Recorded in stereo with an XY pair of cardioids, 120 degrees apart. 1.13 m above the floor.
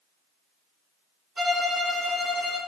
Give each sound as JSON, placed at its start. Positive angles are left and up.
{"t": 1.4, "sound": "a violin", "azimuth_deg": -20, "distance_m": 0.7}